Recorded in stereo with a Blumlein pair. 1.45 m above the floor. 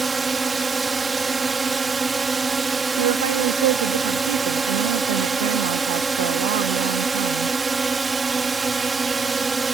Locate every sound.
0.0 s a drone: 10° right
3.0 s a woman speaking: 55° right